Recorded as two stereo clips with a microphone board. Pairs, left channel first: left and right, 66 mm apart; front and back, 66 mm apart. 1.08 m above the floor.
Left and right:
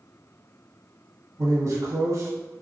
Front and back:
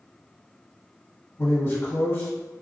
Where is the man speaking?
55° right, 1.4 m.